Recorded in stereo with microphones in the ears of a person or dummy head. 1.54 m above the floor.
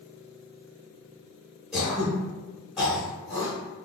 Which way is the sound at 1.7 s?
Centre (ahead or behind).